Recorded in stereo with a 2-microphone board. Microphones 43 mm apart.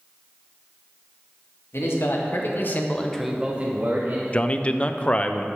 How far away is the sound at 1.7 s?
About 2.5 m.